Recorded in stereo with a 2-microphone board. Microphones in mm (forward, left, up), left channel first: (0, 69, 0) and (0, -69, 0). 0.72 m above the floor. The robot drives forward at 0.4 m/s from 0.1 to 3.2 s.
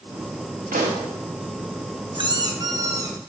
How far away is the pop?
About 1.2 m.